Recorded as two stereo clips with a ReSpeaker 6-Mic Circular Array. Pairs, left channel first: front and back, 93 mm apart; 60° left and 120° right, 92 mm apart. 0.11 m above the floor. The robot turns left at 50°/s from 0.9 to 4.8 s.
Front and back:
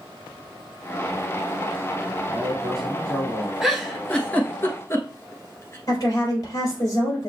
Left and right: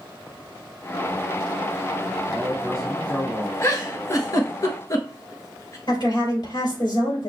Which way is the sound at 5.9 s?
40° left.